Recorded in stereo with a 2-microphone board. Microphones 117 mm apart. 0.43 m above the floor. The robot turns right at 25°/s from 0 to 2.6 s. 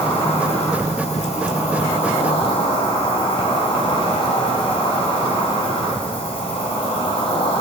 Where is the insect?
60° left, 4.5 m; by 7.6 s 125° left, 4.5 m.